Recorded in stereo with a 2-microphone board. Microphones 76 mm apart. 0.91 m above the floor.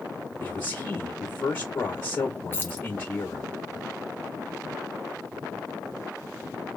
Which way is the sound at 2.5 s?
30° left (ahead or behind).